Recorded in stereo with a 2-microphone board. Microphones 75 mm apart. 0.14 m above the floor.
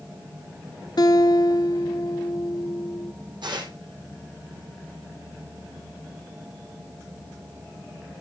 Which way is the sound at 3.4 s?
75° right (ahead or behind).